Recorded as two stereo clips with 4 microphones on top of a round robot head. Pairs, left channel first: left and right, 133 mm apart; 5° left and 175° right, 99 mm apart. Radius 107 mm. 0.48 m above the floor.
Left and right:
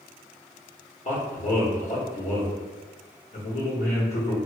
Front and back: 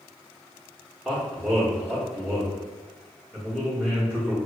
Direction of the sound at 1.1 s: 95° left.